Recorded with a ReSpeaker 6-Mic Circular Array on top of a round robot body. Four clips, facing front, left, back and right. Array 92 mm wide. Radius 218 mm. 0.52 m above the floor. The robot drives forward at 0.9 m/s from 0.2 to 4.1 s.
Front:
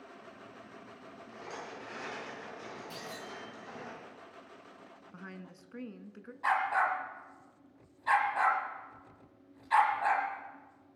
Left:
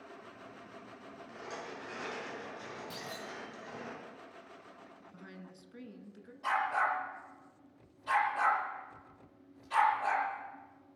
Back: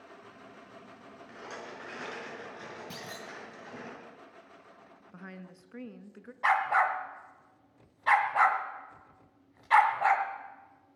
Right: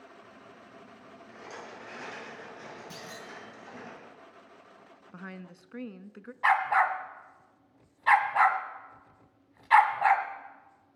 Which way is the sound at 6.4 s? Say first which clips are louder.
Right 7 dB, back 3 dB; 130° right.